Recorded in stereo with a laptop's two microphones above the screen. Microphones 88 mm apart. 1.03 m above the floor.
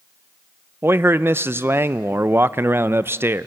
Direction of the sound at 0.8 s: 30° right (ahead or behind).